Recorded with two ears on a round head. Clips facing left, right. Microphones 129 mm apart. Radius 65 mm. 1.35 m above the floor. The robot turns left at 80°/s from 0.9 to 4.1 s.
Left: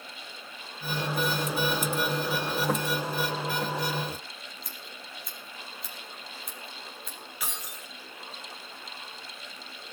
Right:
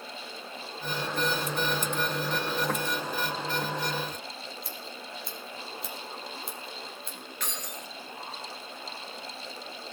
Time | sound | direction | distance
4.6 | scissors | 30° right (ahead or behind) | 4 m
7.4 | keys jangling | 5° left (ahead or behind) | 1.8 m